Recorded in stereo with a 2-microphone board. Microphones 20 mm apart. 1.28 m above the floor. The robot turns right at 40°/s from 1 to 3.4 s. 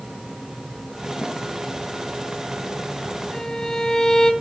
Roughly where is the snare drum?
Right.